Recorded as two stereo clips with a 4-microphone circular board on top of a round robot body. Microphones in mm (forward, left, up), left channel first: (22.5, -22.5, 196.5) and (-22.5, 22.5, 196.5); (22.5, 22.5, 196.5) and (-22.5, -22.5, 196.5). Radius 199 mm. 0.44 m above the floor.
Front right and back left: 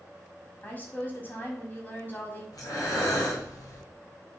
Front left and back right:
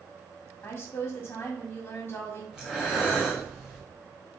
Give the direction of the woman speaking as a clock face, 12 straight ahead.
12 o'clock.